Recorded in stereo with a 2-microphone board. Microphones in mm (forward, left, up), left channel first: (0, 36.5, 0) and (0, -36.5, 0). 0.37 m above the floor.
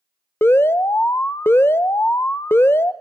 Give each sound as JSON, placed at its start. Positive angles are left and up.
{"t": 0.4, "sound": "an alarm", "side_deg": 30, "distance_m": 0.6}